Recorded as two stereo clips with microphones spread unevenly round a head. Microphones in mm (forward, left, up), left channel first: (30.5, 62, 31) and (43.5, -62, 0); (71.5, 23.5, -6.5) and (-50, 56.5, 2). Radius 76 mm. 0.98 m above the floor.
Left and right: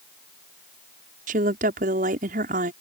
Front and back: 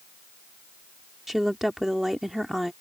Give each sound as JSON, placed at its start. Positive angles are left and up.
{"t": 1.3, "sound": "a woman speaking", "azimuth_deg": -105}